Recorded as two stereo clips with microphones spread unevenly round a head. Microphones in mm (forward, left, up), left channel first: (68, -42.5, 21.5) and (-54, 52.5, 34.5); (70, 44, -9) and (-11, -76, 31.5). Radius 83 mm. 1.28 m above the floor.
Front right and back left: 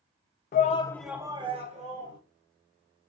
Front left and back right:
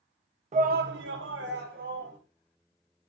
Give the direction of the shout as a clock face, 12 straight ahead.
3 o'clock.